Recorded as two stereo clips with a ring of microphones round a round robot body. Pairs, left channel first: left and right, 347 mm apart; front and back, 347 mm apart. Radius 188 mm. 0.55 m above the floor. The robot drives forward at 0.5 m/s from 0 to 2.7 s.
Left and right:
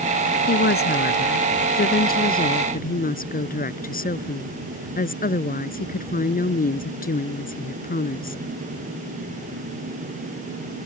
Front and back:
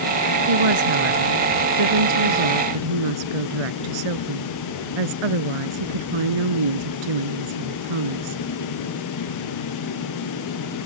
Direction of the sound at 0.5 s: 155° left.